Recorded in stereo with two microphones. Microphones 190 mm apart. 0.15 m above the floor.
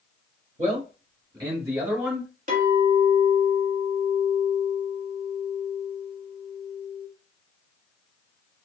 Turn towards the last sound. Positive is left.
turn(degrees=-45)  # may be behind; listen again after turning